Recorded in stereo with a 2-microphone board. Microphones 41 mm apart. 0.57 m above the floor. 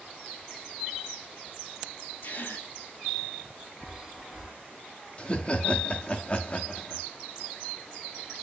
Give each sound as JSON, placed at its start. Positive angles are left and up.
{"t": 2.2, "sound": "a gasp", "side_deg": 70, "distance_m": 3.5}
{"t": 3.8, "sound": "a chime", "side_deg": 5, "distance_m": 1.4}
{"t": 5.2, "sound": "laughter", "side_deg": 25, "distance_m": 0.7}